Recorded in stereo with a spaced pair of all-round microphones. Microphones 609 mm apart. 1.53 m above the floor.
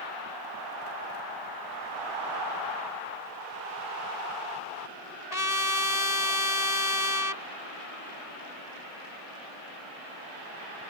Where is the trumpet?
80° left.